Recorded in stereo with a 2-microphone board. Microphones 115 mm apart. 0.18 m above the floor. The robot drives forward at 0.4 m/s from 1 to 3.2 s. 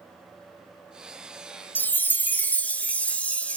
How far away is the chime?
About 0.7 m.